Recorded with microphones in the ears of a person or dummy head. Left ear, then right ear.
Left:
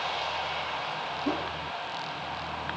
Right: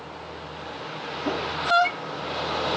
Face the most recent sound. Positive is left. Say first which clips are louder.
# right 5 dB
turn(degrees=-70)  # may be behind; listen again after turning